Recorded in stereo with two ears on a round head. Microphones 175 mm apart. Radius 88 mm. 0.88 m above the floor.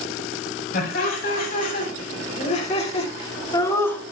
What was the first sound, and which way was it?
Laughter, 50° left (ahead or behind).